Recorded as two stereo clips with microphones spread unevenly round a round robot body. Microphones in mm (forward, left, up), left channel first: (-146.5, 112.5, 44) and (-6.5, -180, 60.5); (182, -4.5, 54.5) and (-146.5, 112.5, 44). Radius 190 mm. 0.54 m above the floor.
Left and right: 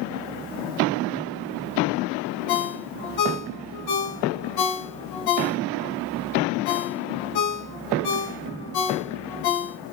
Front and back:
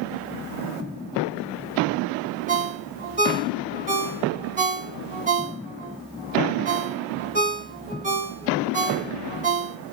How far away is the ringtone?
About 1.4 m.